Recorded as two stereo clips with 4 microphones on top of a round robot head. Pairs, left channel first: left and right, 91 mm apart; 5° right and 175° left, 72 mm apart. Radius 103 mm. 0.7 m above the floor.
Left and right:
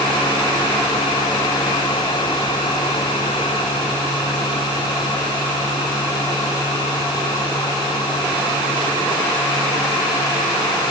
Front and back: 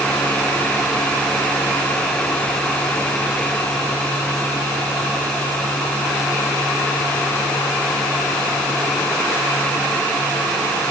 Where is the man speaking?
No man speaking in this recording.